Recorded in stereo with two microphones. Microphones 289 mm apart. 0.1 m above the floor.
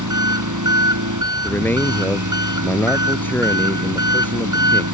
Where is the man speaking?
5° left (ahead or behind).